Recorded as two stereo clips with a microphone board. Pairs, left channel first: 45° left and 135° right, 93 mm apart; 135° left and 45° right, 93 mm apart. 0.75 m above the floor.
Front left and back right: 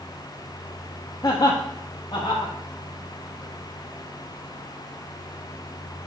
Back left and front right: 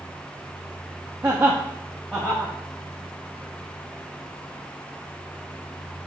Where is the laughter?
15° left, 1.0 m; by 2.5 s 60° left, 1.4 m.